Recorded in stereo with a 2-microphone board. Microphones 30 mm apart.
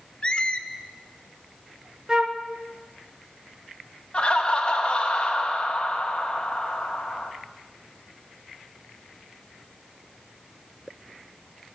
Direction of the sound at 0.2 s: 35° left (ahead or behind).